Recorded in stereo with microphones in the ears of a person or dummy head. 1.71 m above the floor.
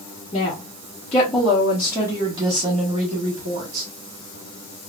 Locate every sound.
0.3 s a woman speaking: 25° left (ahead or behind), 1.4 m; by 3.9 s 55° right (ahead or behind), 1.4 m